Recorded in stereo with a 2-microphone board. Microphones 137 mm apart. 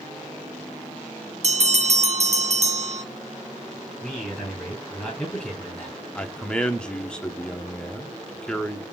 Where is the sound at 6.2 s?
5° left (ahead or behind), 0.8 m.